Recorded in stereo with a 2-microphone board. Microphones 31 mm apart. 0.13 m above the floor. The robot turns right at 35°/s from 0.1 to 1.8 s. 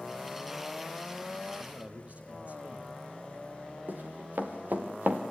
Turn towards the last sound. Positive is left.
turn(degrees=-80)